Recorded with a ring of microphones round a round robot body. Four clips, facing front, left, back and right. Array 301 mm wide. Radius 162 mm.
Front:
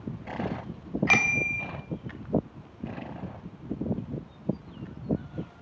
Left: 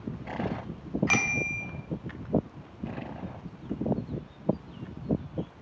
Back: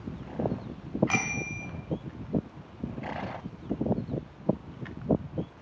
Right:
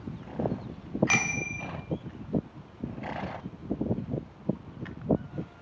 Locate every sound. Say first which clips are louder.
1.1 s a bicycle bell: left 1 dB, front 4 dB; 5° right, 2 m